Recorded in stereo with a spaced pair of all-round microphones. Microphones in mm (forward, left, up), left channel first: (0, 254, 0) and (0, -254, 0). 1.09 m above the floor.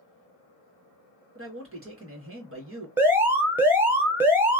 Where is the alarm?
5° right (ahead or behind), 0.6 m.